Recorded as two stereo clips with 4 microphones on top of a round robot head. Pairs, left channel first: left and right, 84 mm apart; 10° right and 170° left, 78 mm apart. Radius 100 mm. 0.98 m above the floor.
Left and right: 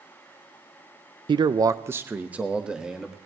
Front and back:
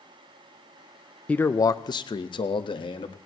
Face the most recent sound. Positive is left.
turn(degrees=-5)